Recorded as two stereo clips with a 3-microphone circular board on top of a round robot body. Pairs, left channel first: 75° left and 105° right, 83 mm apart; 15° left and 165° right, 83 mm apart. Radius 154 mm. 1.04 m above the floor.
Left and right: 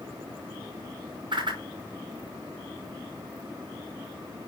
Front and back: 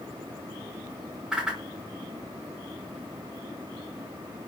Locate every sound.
1.3 s a whoosh: 85° right, 5 m